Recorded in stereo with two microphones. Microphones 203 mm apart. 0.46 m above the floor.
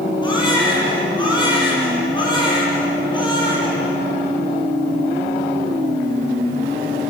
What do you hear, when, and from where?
0.2 s a baby crying: 20° left (ahead or behind), 7.5 m